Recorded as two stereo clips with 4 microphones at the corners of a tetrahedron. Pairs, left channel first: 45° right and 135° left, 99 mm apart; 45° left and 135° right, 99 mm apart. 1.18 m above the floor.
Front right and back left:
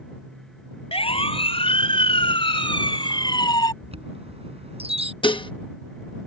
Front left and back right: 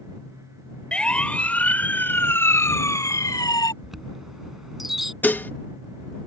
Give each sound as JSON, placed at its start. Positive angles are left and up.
{"t": 0.9, "sound": "a siren", "azimuth_deg": -35}
{"t": 3.8, "sound": "a chime", "azimuth_deg": 135}
{"t": 5.2, "sound": "dishes clattering", "azimuth_deg": -25}